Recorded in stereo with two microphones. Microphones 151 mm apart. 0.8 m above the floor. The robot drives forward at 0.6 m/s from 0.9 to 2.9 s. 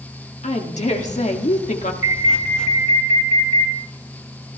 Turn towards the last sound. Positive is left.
turn(degrees=60)  # may be behind; listen again after turning